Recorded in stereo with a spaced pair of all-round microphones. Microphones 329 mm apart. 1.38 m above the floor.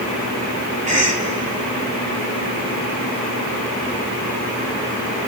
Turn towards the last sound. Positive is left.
turn(degrees=-25)  # may be behind; listen again after turning